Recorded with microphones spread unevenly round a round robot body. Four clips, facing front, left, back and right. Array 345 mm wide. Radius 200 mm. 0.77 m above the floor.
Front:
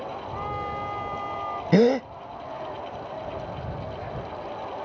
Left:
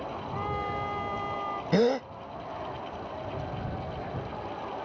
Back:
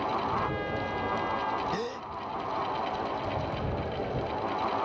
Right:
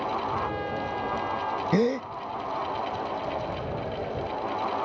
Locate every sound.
0.3 s a trumpet: 115° left
1.7 s a gasp: 15° right